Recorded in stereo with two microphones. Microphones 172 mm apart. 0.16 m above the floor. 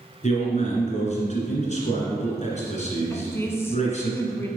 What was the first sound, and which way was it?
A man speaking, 45° left (ahead or behind).